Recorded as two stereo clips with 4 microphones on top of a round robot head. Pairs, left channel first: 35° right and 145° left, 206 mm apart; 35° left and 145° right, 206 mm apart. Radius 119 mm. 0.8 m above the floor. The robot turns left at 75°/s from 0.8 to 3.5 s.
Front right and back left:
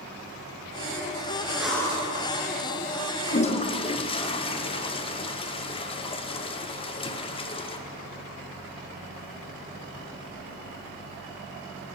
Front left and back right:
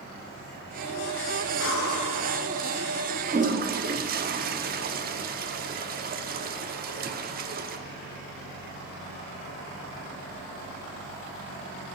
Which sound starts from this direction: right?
A toilet flushing, at 3.3 s.